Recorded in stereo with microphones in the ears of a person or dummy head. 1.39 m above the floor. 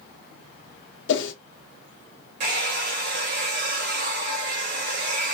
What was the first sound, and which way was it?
A whoosh, 70° left (ahead or behind).